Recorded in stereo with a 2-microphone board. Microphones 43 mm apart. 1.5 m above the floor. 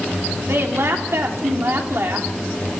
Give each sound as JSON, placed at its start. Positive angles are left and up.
{"t": 0.5, "sound": "a woman speaking", "side_deg": -75, "distance_m": 3.5}